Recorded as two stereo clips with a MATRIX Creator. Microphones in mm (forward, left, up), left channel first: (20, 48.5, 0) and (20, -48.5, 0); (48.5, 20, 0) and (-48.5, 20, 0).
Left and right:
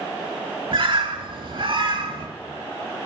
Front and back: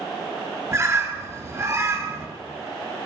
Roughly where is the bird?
Behind right.